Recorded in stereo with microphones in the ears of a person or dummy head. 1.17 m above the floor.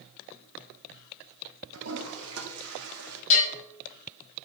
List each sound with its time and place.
1.7 s a toilet flushing: 80° right, 3 m
3.3 s a bell: 50° left (ahead or behind), 6.5 m